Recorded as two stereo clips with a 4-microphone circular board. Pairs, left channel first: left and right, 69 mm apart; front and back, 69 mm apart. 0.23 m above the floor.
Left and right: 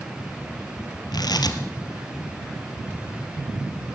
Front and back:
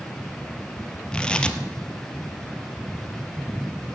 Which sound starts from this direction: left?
Tearing paper, at 1.1 s.